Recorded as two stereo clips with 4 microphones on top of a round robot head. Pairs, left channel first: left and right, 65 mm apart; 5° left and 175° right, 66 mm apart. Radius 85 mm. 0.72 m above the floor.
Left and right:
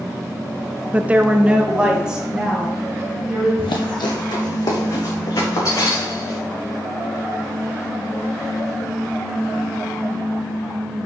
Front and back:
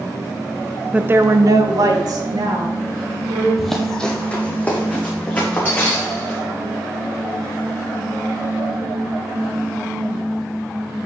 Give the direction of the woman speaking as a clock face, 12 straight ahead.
4 o'clock.